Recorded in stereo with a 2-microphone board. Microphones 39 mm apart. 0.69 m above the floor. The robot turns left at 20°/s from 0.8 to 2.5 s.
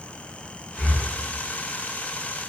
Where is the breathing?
15° left (ahead or behind), 0.7 m; by 1.1 s 20° left (ahead or behind), 0.7 m.